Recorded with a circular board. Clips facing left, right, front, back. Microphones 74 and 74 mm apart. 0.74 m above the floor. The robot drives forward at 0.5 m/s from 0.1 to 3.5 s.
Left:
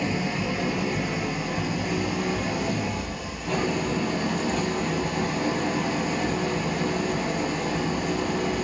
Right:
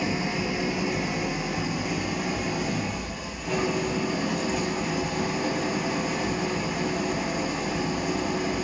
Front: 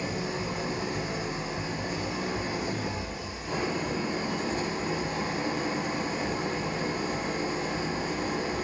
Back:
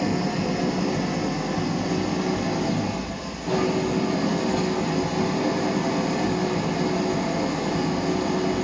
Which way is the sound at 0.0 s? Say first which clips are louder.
Left 1 dB, back 8 dB; 175° right.